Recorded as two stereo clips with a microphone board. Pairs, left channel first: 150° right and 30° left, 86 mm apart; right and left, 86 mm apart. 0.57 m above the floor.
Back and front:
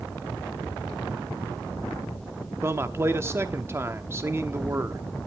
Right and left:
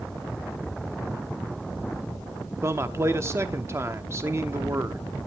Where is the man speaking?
60° left, 1.0 m.